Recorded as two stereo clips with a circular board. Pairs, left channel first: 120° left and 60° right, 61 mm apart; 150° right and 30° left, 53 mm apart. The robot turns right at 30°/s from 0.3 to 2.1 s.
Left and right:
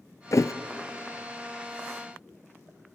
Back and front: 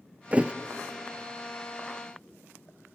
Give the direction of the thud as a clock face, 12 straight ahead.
9 o'clock.